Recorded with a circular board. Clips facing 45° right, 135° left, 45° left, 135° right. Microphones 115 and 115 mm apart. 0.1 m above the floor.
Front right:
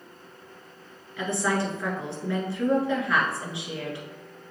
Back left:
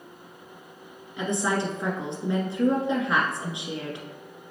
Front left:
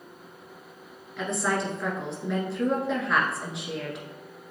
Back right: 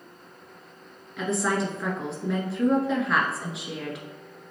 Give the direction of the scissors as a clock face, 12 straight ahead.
I don't hear scissors.